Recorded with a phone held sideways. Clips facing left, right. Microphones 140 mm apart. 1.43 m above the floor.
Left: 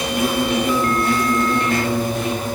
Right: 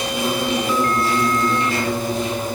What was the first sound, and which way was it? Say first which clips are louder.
An insect: left 2 dB; 55° left (ahead or behind).